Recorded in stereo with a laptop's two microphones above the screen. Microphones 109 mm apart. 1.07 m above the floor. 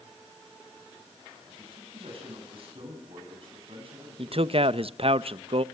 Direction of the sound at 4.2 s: 60° right (ahead or behind).